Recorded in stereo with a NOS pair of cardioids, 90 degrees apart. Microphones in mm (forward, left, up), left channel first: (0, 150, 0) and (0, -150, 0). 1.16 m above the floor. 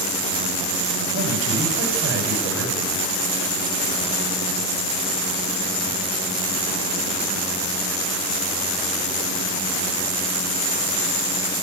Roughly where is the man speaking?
Ahead right.